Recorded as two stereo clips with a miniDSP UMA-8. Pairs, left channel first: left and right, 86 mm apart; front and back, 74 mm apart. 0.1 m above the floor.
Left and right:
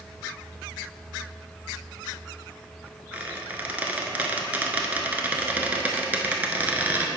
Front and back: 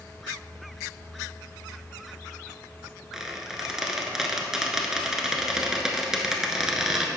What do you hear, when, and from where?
3.1 s a squeak: 110° right, 0.6 m